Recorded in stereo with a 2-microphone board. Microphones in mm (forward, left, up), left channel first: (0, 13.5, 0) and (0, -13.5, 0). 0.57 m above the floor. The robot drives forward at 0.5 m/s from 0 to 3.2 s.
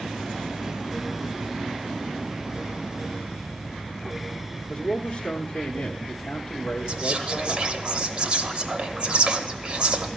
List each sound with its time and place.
4.7 s a man speaking: 35° left (ahead or behind), 1.0 m
6.9 s whispering: 40° right (ahead or behind), 0.7 m